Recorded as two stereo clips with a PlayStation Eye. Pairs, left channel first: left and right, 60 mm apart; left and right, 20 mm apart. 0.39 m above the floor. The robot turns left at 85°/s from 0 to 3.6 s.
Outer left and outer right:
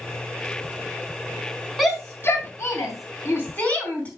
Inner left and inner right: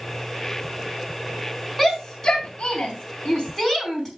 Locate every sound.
1.8 s a shout: centre (ahead or behind), 4 m; by 4.1 s 25° left (ahead or behind), 4 m